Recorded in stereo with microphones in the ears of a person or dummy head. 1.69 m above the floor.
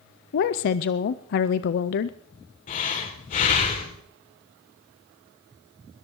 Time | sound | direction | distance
0.3 | a woman speaking | 50° left (ahead or behind) | 0.5 m
2.7 | breathing | 40° left (ahead or behind) | 2.5 m